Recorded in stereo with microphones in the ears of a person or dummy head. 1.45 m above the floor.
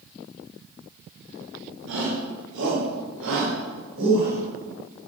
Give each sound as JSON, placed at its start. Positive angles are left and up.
{"t": 1.9, "sound": "a shout", "side_deg": -70, "distance_m": 4.5}